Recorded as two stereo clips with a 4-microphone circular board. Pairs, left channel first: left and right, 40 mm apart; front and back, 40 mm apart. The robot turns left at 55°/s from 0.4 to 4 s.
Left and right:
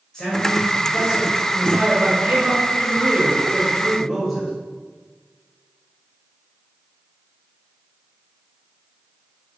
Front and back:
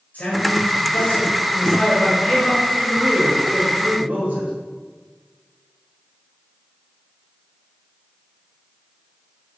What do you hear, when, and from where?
0.1 s a man speaking: 25° left, 2 m; by 4.5 s 175° right, 2 m